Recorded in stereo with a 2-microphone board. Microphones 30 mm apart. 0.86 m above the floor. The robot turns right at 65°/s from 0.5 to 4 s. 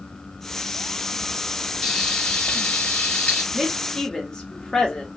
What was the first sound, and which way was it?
Frying, 5° left.